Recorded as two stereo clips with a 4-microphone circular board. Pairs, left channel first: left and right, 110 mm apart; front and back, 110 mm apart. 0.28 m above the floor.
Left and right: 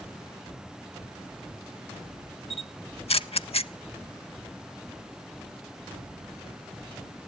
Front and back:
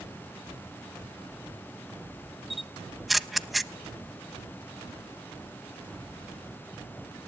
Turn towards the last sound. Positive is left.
turn(degrees=90)